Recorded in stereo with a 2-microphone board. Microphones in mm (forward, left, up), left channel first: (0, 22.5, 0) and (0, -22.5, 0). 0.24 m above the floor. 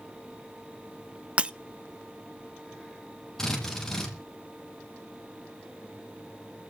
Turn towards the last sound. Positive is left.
turn(degrees=10)  # may be behind; listen again after turning